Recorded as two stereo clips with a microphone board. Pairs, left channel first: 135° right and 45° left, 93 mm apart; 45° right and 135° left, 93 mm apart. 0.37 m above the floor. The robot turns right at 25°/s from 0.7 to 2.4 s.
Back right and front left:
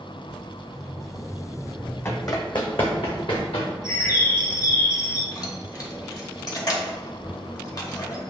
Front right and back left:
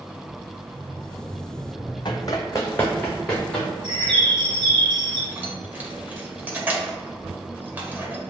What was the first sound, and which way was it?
Running footsteps, 80° right.